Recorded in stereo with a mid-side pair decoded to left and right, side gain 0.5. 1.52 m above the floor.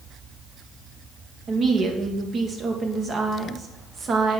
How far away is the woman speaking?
About 1.7 m.